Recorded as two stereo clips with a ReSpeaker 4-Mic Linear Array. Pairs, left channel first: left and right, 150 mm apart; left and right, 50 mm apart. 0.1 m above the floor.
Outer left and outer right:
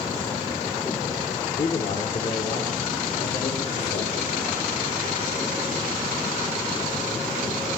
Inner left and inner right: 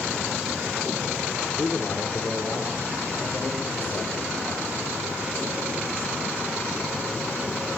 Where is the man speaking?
60° left (ahead or behind), 6 m; by 4.8 s 55° left (ahead or behind), 9.5 m.